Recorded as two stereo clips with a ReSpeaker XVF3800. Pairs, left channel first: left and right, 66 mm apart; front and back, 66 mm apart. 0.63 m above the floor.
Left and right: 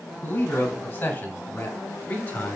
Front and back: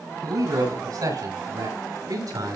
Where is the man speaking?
150° left, 6.5 m; by 2.6 s 160° left, 5.5 m.